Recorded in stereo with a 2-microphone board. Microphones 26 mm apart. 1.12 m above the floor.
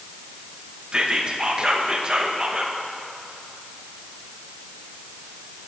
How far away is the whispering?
About 0.7 m.